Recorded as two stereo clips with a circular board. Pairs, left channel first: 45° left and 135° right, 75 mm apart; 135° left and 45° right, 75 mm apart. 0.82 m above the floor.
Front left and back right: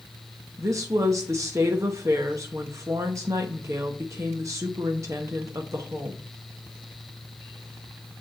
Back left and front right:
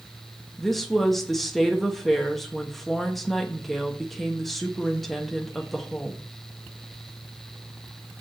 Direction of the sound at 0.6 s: 140° right.